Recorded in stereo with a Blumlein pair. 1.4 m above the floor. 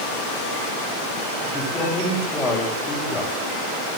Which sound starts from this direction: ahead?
A man speaking, at 1.4 s.